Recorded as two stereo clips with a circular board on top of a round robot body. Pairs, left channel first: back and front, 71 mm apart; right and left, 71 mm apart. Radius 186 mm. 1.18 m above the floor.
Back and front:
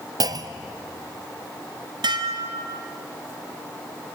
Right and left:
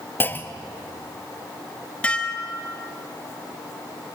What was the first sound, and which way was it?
A clunk, 25° right.